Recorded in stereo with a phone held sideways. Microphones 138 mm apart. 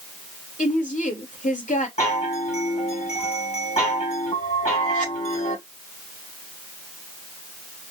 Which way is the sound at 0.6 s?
70° left (ahead or behind).